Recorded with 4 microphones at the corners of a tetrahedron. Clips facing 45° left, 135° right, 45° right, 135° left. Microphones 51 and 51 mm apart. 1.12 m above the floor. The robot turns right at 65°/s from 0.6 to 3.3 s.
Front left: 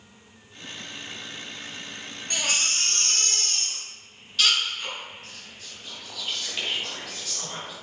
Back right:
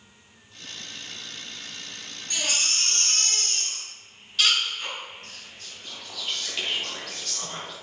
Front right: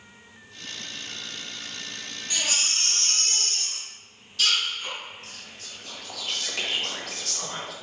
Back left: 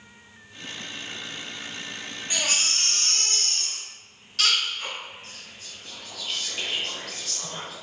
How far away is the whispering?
About 1.2 m.